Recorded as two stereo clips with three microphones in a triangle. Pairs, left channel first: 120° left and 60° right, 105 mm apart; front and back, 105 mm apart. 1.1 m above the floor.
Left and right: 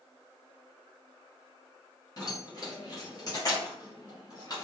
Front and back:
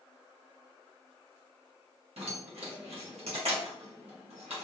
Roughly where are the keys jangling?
Behind.